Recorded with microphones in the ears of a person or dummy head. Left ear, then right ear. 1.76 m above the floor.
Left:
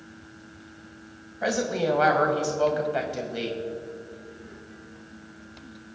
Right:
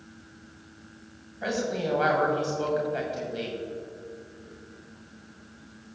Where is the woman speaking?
20° left (ahead or behind), 1.6 m.